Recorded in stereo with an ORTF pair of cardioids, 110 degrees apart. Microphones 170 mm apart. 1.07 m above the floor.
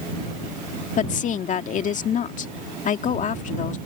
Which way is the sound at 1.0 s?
50° left.